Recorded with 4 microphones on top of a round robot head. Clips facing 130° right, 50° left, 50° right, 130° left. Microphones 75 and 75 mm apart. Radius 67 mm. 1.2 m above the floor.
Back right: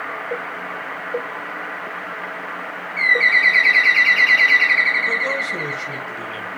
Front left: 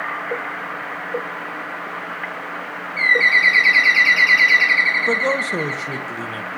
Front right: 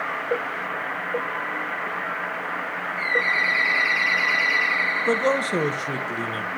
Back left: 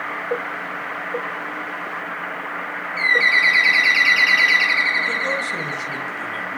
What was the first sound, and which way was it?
A bird, 125° left.